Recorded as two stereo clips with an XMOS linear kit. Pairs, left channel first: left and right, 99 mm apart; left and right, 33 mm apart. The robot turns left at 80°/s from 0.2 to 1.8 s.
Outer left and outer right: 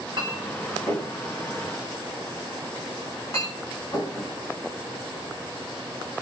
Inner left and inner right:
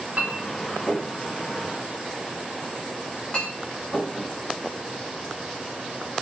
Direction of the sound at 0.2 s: 55° right (ahead or behind).